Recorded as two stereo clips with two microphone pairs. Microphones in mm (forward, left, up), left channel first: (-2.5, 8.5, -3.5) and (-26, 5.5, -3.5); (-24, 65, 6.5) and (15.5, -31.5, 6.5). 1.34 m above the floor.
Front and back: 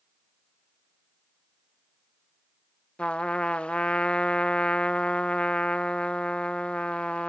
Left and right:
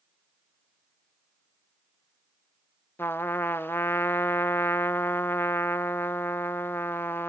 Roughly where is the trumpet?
Ahead left.